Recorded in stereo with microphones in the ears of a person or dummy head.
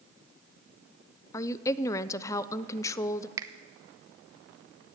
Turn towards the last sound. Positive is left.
turn(degrees=-20)  # may be behind; listen again after turning